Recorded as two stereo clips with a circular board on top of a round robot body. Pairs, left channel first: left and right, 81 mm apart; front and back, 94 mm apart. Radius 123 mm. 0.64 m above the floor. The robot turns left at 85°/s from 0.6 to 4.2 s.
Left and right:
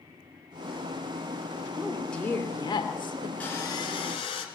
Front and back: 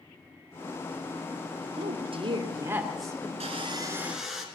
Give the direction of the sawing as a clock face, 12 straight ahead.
7 o'clock.